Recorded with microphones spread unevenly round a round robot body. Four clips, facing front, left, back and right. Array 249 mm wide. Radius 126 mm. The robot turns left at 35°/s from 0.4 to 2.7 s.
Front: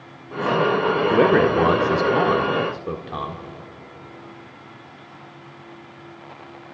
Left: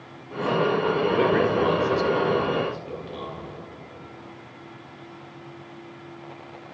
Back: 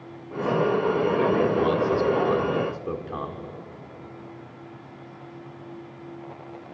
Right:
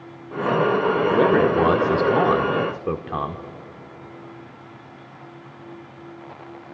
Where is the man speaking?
20° right, 1.3 m; by 3.4 s 75° right, 1.3 m.